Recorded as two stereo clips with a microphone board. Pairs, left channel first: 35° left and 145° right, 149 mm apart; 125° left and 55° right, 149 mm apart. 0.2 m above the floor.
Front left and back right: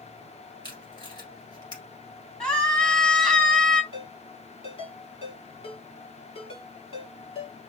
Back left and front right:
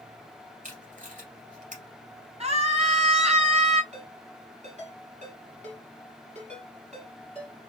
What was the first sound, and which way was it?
Tape being pulled, 25° right.